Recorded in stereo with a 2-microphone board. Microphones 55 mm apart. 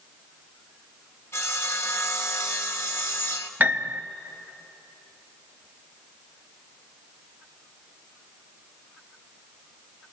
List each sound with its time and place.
1.3 s sawing: 50° left (ahead or behind), 1.5 m
3.6 s a piano: 35° right (ahead or behind), 0.7 m